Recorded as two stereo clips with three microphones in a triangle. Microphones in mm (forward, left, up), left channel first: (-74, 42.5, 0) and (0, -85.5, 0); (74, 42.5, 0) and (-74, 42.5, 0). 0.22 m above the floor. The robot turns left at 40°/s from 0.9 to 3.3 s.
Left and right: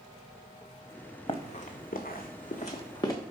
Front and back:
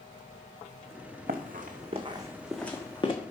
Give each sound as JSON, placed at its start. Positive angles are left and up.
{"t": 1.3, "sound": "running footsteps", "azimuth_deg": 175, "distance_m": 1.1}